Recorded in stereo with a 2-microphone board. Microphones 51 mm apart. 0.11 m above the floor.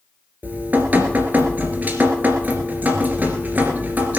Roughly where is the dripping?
Right.